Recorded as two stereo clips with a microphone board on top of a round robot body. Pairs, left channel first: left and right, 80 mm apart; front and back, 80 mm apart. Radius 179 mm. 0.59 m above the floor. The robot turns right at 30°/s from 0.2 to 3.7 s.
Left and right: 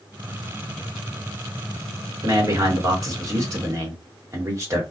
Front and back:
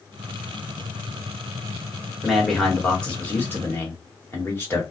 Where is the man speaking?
95° right, 1.6 m; by 4.8 s 50° right, 1.6 m.